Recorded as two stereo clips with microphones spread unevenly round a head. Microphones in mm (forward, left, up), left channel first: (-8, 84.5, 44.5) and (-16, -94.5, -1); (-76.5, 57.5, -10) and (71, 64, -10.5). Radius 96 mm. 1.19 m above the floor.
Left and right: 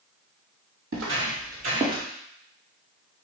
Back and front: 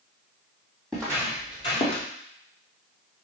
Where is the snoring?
I don't hear snoring.